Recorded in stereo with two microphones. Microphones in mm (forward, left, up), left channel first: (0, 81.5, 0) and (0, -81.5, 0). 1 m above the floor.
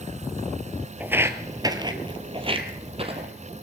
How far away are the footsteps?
About 1.0 m.